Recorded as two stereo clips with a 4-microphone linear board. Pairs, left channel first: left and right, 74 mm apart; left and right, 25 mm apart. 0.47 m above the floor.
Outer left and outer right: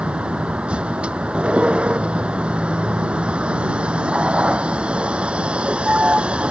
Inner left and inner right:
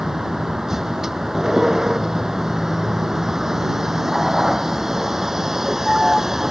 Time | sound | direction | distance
0.0 | a vehicle | 15° right (ahead or behind) | ?